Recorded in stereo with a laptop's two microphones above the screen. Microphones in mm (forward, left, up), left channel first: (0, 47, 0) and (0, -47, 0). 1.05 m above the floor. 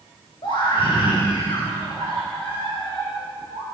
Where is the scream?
60° left (ahead or behind), 5 m.